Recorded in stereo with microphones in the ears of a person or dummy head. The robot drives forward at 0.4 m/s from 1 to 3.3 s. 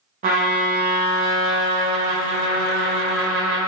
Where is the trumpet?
40° right (ahead or behind), 0.9 m; by 3.7 s 20° right (ahead or behind), 1.7 m.